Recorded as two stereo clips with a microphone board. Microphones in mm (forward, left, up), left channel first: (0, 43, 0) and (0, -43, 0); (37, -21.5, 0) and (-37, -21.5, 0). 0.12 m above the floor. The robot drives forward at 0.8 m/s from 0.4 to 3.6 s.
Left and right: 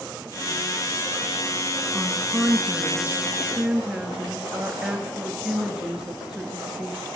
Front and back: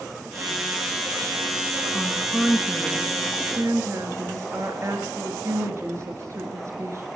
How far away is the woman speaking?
About 1.2 m.